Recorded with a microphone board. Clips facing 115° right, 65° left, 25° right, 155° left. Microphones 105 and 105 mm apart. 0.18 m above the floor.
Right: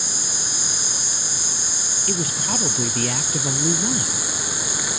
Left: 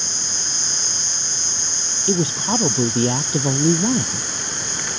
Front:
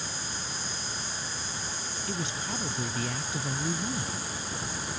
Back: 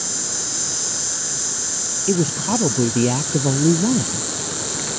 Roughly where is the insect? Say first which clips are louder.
Right 1 dB, back 6 dB; behind.